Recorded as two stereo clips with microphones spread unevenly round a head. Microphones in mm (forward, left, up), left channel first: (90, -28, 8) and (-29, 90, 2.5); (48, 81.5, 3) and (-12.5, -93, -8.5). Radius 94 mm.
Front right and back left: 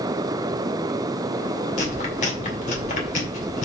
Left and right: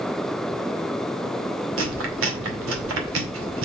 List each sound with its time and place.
1.8 s chewing: 100° right, 2 m